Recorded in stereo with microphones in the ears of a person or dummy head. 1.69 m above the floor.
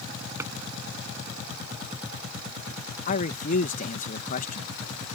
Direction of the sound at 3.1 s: 55° left (ahead or behind).